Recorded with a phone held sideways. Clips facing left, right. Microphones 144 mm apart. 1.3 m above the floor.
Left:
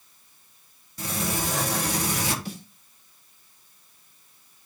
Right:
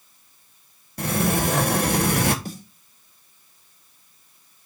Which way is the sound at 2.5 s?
45° right (ahead or behind).